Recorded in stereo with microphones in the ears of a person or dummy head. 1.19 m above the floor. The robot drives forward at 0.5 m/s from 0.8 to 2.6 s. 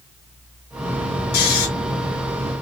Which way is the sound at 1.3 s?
85° left.